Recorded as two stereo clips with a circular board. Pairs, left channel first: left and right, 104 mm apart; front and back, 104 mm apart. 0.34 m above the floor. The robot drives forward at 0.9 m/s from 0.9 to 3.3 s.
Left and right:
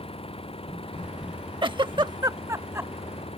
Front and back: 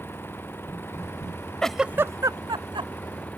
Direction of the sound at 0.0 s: 70° left.